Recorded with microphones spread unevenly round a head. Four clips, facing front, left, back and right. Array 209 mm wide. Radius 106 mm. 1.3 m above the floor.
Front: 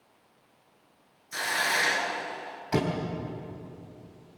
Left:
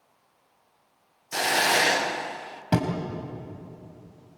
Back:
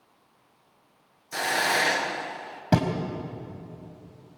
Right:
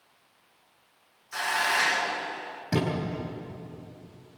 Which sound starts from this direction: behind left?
A thud, at 2.7 s.